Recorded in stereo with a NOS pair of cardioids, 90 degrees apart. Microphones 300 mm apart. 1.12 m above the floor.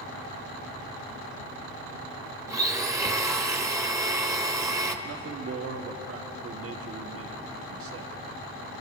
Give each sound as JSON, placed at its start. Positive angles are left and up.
{"t": 2.5, "sound": "a blender", "azimuth_deg": -10, "distance_m": 1.2}
{"t": 5.0, "sound": "a man speaking", "azimuth_deg": -50, "distance_m": 1.6}